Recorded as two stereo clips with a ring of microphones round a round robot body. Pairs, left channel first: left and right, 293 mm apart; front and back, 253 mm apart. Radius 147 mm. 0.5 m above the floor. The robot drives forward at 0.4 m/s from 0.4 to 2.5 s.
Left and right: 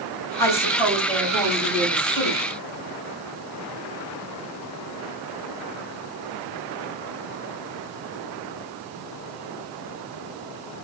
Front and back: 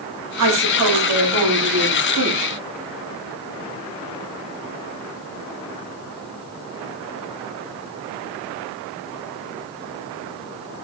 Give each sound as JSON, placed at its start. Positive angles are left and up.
{"t": 0.4, "sound": "a woman speaking", "azimuth_deg": 170, "distance_m": 4.5}